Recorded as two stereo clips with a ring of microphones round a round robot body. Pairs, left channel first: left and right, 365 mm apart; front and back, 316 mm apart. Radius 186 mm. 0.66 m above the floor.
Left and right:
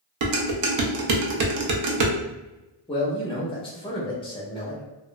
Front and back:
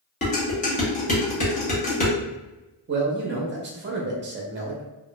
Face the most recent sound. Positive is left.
turn(degrees=155)